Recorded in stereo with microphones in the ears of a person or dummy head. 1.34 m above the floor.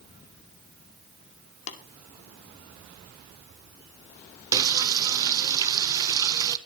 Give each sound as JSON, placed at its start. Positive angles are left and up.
{"t": 1.7, "sound": "tapping", "side_deg": 65, "distance_m": 2.0}
{"t": 4.5, "sound": "frying", "side_deg": -25, "distance_m": 0.6}